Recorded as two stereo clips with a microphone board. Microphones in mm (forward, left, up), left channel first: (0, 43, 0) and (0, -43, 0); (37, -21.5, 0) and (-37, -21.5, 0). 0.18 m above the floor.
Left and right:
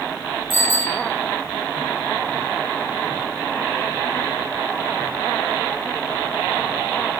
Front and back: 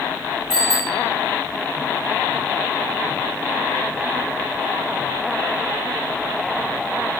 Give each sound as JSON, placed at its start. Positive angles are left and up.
{"t": 0.5, "sound": "a bicycle bell", "azimuth_deg": -100, "distance_m": 9.0}